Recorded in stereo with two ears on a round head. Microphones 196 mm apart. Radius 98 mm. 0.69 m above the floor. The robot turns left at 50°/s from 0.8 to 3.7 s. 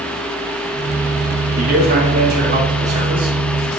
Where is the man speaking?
65° right, 1.5 m; by 3.4 s 155° right, 1.5 m.